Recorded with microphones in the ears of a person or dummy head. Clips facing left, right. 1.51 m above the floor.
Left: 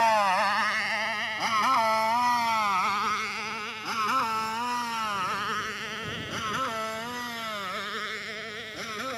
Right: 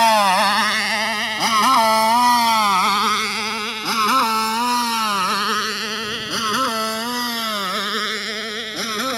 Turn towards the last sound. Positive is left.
turn(degrees=-80)